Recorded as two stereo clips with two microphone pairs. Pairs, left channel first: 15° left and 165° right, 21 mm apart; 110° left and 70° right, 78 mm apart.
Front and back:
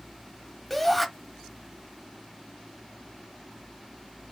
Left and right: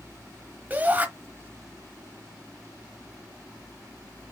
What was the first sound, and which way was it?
A shout, 60° right.